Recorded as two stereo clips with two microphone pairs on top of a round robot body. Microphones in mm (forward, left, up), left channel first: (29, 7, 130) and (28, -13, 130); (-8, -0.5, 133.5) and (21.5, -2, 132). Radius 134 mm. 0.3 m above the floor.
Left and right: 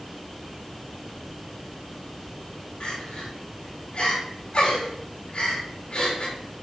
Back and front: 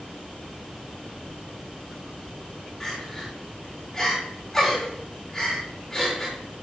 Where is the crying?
100° left, 4 m.